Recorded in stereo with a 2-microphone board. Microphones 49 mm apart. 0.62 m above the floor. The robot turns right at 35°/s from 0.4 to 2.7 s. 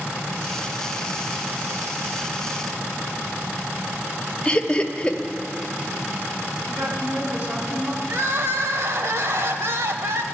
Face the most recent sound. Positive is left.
turn(degrees=-60)  # may be behind; listen again after turning